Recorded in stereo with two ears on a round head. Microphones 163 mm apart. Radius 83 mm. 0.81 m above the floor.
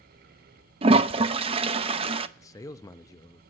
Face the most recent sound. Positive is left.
turn(degrees=20)  # may be behind; listen again after turning